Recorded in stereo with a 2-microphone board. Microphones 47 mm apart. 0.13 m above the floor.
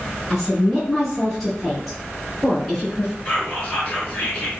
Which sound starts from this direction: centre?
A woman speaking, at 0.3 s.